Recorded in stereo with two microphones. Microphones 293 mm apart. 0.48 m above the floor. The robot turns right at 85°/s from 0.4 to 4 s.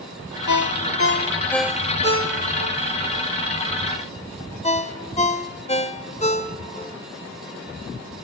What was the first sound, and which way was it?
A ringtone, 70° left (ahead or behind).